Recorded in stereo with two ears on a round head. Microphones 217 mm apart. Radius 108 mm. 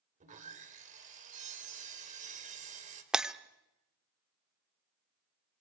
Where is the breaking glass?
5° right (ahead or behind), 0.7 m.